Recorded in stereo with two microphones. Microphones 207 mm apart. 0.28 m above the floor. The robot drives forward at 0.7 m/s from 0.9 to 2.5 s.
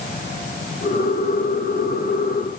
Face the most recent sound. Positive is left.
No sound to turn to.